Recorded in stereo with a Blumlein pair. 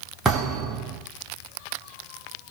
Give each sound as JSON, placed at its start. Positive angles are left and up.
{"t": 0.2, "sound": "a thud", "azimuth_deg": -5, "distance_m": 7.0}